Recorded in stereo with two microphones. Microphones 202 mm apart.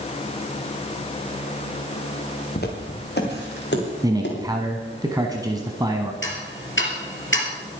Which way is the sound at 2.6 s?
50° left (ahead or behind).